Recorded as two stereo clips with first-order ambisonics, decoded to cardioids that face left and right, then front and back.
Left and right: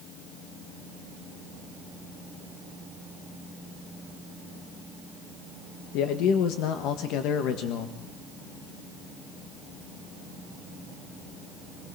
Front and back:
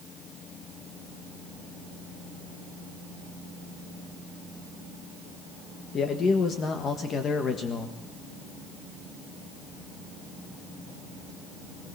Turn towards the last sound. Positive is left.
turn(degrees=60)